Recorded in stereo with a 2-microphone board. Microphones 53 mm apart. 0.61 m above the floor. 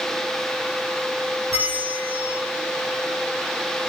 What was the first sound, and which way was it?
A bell, 80° right.